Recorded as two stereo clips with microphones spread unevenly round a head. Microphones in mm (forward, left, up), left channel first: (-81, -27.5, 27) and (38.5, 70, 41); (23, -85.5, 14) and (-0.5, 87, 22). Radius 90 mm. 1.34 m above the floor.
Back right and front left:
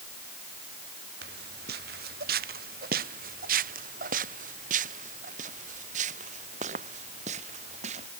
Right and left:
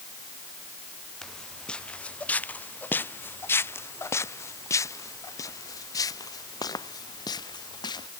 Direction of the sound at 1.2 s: 5° left.